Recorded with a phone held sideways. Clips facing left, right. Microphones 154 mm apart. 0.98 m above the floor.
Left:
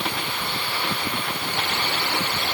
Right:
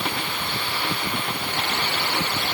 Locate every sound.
Only background noise.